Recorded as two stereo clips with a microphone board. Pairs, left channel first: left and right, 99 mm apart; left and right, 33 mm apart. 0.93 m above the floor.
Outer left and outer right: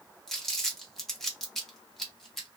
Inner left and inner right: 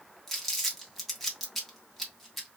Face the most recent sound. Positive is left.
turn(degrees=5)  # may be behind; listen again after turning